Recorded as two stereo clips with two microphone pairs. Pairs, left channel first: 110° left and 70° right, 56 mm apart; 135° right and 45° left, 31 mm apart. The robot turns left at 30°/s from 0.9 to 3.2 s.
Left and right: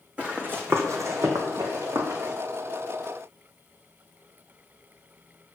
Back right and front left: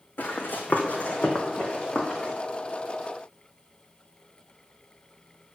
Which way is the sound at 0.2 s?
135° right.